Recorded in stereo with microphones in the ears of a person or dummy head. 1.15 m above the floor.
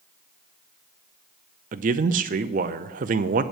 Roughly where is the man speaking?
Right.